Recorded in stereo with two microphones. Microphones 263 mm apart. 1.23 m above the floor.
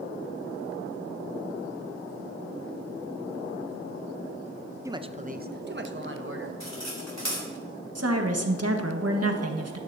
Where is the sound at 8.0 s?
65° right (ahead or behind), 1.3 m.